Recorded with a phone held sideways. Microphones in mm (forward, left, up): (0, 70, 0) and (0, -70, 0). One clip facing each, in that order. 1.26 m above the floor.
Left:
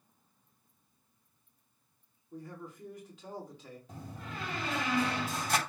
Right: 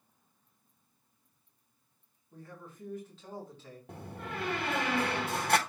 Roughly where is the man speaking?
Centre.